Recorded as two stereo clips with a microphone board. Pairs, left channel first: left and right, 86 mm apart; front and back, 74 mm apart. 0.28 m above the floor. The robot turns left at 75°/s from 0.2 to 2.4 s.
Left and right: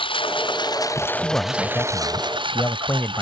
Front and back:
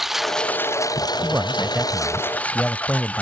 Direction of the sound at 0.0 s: 95° left.